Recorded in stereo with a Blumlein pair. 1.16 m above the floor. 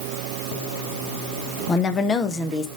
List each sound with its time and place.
1.7 s a woman speaking: 20° left, 1.2 m